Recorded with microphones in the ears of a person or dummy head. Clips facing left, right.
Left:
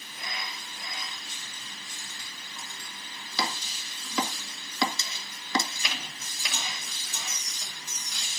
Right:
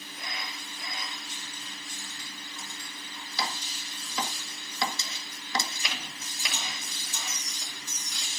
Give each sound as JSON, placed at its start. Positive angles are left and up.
{"t": 3.4, "sound": "chopping", "side_deg": 65, "distance_m": 1.5}